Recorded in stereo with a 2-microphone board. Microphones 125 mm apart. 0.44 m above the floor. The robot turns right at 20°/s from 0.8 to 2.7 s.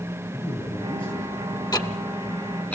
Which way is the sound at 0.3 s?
45° left (ahead or behind).